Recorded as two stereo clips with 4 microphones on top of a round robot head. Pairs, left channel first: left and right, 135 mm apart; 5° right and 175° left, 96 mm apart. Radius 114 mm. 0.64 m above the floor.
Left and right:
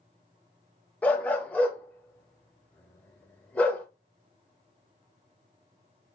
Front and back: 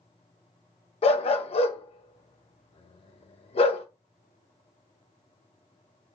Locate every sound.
1.0 s a dog barking: 10° left, 0.8 m